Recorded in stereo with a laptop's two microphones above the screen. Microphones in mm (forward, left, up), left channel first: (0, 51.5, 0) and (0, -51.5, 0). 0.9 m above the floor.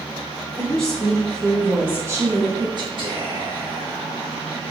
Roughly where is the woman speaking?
Centre.